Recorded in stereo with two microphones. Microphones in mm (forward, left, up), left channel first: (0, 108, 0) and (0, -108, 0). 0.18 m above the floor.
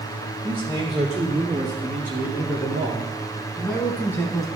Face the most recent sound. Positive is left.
turn(degrees=15)  # may be behind; listen again after turning